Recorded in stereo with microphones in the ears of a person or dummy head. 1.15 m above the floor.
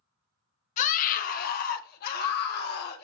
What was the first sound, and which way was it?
A scream, 40° left (ahead or behind).